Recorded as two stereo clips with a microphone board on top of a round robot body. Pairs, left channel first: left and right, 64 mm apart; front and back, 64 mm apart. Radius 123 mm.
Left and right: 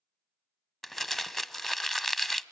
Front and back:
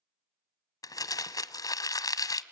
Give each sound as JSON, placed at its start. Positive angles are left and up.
{"t": 0.8, "sound": "crumpling", "azimuth_deg": 5, "distance_m": 0.7}